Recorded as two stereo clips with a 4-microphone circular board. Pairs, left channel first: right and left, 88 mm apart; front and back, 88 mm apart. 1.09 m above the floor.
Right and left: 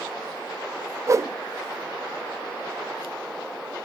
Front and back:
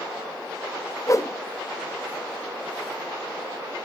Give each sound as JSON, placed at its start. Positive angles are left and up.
{"t": 1.1, "sound": "a whoosh", "azimuth_deg": 45, "distance_m": 0.5}